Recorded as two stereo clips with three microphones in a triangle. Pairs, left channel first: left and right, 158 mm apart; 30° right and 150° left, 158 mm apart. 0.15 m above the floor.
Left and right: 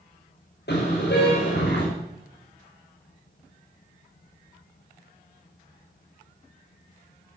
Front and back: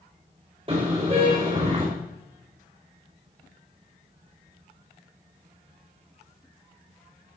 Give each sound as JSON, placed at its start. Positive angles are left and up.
{"t": 0.7, "sound": "a car horn", "azimuth_deg": 95, "distance_m": 6.5}